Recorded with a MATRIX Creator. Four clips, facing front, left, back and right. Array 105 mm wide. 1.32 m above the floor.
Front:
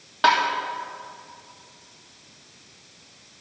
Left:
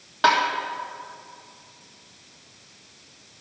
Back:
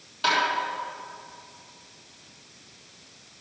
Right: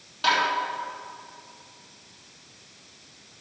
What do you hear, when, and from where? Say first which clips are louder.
0.2 s tapping: left 5 dB, front 6 dB; 45° left, 1.9 m